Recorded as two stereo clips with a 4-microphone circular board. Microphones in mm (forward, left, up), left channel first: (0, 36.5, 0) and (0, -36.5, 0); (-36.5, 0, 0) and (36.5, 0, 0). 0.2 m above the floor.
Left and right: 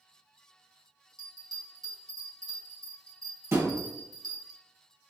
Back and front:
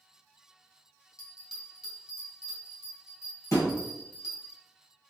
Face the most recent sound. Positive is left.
turn(degrees=-135)